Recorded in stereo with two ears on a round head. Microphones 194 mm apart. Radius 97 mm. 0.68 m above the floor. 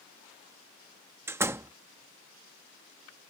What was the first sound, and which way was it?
A door slam, 10° right (ahead or behind).